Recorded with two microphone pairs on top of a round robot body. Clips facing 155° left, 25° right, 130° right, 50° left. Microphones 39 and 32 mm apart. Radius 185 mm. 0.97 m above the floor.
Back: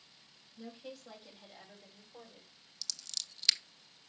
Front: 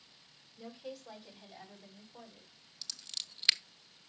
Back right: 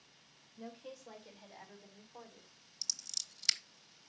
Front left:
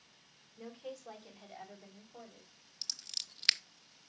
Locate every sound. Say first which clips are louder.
0.6 s a woman speaking: front 2 dB, front left 3 dB; 70° left, 4.5 m; by 2.5 s 80° left, 5.5 m
2.8 s scissors: front 1 dB, front left 1 dB; 25° left, 1.0 m